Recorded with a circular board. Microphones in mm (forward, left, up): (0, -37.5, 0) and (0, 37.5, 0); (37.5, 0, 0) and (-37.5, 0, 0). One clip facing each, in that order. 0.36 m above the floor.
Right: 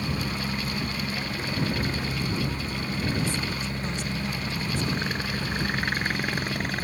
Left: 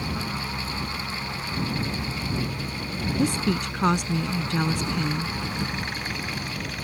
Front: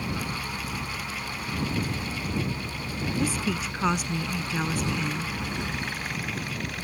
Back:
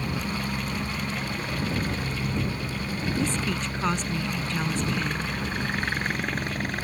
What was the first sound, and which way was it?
A helicopter, 140° right.